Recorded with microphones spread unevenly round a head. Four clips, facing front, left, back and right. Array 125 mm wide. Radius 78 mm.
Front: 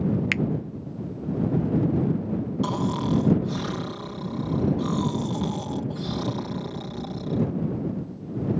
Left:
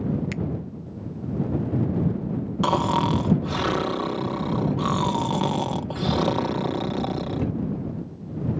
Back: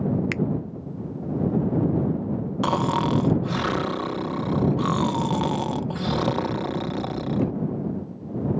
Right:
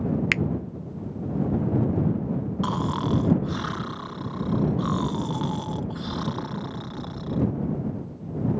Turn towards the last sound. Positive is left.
turn(degrees=140)